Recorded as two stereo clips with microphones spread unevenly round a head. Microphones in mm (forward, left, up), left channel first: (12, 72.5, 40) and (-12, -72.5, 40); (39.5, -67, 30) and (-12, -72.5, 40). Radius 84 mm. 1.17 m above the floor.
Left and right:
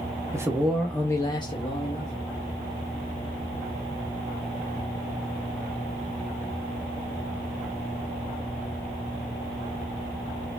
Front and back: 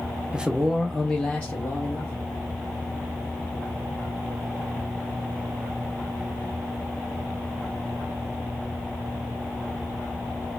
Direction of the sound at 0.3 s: 105° right.